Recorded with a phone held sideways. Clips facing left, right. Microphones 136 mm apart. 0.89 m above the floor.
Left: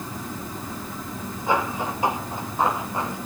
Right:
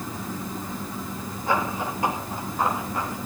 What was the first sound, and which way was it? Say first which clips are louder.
Running footsteps: left 1 dB; 20° left (ahead or behind).